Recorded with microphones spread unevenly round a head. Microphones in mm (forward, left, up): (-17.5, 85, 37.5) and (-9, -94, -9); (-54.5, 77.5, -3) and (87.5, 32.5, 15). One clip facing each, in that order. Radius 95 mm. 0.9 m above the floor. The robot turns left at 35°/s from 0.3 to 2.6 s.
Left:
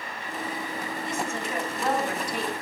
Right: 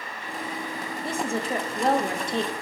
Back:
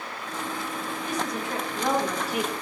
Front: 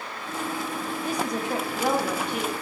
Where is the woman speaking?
75° right, 0.9 m; by 2.5 s 130° right, 0.9 m.